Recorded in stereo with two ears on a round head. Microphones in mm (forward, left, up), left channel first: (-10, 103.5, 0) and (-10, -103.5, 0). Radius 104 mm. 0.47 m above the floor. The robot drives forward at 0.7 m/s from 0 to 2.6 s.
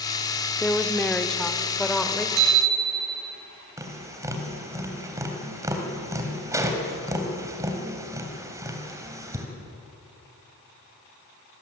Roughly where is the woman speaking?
Centre.